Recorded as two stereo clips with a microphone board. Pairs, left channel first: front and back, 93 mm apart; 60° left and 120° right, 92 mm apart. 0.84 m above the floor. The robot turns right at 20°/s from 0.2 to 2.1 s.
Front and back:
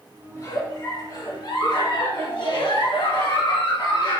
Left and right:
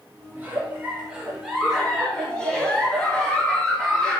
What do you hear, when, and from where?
0.3 s a giggle: 55° right, 3 m; by 4.2 s 20° right, 3 m